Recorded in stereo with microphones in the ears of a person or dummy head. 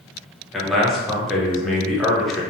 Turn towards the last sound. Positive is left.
turn(degrees=0)  # may be behind; listen again after turning